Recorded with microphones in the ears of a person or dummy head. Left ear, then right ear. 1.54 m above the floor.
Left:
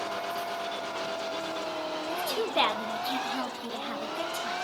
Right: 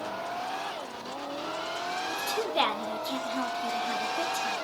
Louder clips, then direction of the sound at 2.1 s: Left 2 dB; 10° left (ahead or behind).